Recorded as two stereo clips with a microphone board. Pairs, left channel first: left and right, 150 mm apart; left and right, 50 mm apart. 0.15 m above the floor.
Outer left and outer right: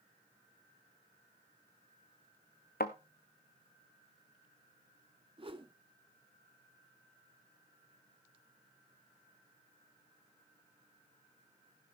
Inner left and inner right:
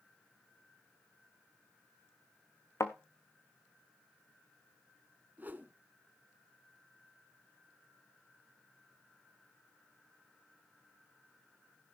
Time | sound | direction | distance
2.8 | a thud | 80° left | 1.1 m
5.4 | a whoosh | 35° right (ahead or behind) | 1.0 m